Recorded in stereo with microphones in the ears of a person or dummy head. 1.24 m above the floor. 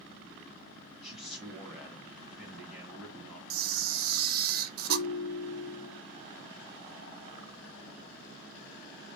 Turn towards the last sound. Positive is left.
turn(degrees=50)  # may be behind; listen again after turning